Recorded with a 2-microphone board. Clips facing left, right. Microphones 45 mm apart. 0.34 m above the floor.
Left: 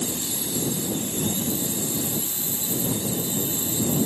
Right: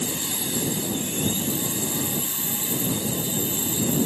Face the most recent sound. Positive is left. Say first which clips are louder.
# right 1 dB
turn(degrees=-40)  # may be behind; listen again after turning